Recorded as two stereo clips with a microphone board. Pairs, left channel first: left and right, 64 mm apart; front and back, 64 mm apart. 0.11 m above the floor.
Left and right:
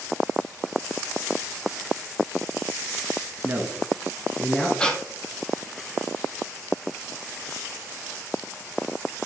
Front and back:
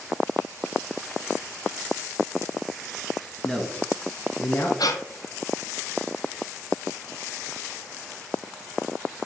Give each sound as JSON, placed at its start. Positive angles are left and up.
{"t": 3.4, "sound": "a man speaking", "azimuth_deg": -75, "distance_m": 1.2}
{"t": 4.8, "sound": "breathing", "azimuth_deg": 15, "distance_m": 0.7}